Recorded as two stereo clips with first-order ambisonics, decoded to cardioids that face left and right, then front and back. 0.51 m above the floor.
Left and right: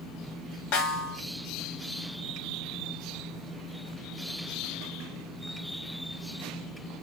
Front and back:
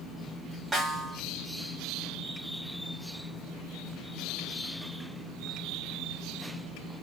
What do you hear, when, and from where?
0.7 s a snare drum: 100° left, 0.9 m